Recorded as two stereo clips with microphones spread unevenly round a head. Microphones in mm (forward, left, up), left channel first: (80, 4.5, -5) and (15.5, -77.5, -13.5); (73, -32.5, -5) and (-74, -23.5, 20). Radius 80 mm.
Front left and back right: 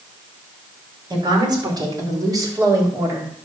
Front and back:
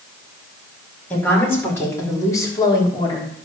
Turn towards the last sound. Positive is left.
turn(degrees=-65)